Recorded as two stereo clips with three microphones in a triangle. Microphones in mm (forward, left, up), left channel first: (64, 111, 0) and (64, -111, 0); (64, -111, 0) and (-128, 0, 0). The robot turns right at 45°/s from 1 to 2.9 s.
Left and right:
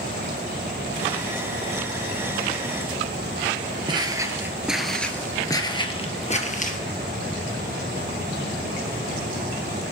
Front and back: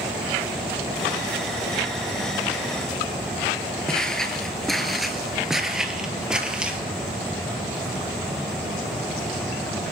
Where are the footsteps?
110° right, 1.3 m; by 6.8 s 65° left, 1.6 m.